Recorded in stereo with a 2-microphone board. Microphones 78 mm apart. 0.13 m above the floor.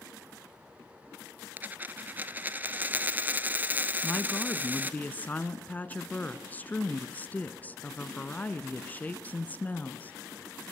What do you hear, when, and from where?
1.6 s a dropped coin: 25° right (ahead or behind), 0.7 m
4.0 s a woman speaking: 25° left (ahead or behind), 1.2 m